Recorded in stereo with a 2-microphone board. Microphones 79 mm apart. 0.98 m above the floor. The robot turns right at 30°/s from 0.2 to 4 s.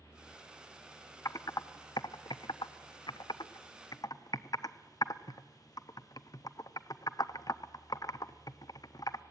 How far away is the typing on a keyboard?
About 0.6 m.